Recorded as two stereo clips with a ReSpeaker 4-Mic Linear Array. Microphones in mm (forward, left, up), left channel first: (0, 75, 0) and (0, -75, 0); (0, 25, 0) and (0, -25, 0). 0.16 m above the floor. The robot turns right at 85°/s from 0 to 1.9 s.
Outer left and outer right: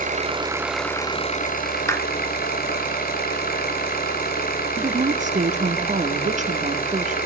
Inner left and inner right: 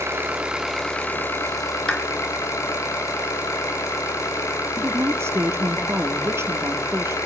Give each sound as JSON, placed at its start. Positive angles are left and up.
{"t": 0.0, "sound": "an engine running", "azimuth_deg": -65, "distance_m": 4.0}
{"t": 1.9, "sound": "a clap", "side_deg": 20, "distance_m": 2.0}
{"t": 4.8, "sound": "a woman speaking", "side_deg": -55, "distance_m": 3.5}